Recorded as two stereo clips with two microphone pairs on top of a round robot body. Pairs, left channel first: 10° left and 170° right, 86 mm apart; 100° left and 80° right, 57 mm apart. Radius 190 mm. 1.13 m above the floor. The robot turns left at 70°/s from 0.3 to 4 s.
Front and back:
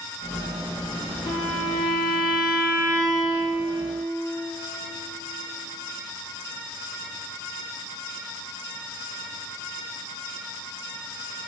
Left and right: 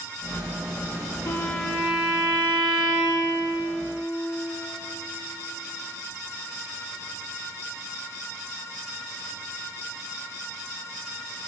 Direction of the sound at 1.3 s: 50° left.